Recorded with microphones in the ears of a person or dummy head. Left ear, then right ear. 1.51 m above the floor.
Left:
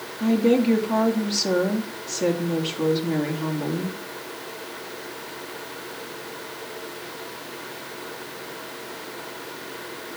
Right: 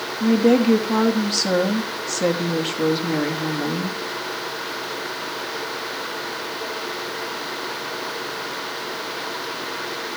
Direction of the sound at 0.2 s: 10° right (ahead or behind).